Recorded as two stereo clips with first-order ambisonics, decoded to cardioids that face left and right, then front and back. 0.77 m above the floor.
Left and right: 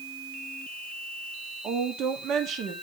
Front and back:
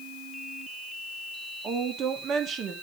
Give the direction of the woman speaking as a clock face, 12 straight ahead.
4 o'clock.